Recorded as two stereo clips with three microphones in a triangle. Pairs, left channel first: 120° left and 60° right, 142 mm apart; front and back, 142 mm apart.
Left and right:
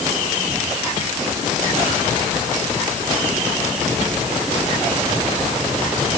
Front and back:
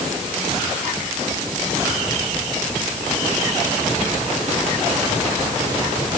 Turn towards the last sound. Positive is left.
No sound to turn to.